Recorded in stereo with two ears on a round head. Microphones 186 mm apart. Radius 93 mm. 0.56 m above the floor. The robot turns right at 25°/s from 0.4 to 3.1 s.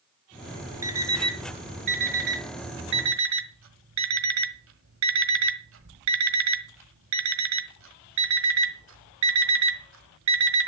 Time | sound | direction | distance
0.8 | an alarm clock | 15° right (ahead or behind) | 1.5 m